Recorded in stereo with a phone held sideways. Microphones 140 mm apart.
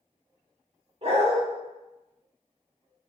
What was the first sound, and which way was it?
A dog barking, 50° right (ahead or behind).